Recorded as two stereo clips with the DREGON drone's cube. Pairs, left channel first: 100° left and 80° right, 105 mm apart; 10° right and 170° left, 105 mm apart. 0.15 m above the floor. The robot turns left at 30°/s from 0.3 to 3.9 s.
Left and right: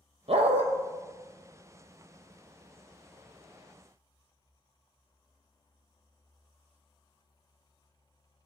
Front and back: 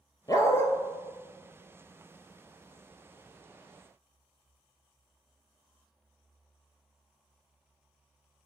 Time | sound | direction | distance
0.3 | a dog barking | 70° right | 1.0 m